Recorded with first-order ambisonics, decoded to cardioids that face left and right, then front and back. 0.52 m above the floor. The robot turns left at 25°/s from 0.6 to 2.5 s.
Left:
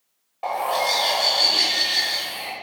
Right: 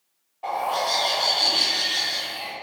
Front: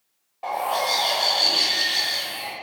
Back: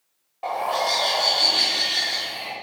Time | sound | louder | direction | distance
0.4 | a bird | left 2 dB, even | 105° left | 1.3 m